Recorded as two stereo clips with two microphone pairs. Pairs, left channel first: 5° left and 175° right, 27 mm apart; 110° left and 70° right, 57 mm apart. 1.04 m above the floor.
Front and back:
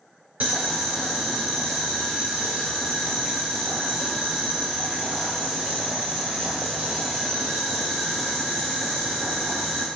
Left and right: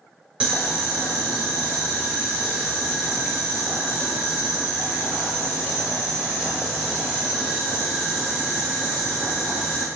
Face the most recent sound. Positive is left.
turn(degrees=-145)